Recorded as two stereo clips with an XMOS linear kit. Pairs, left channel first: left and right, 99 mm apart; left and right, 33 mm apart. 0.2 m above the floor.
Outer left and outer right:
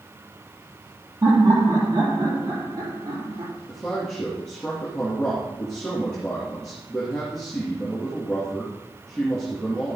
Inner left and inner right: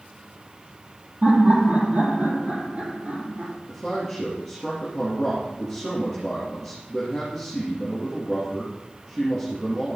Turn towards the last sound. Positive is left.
turn(degrees=5)  # may be behind; listen again after turning